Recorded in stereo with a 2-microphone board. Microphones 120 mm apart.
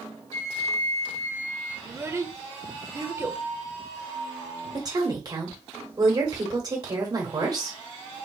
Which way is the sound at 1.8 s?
25° right (ahead or behind).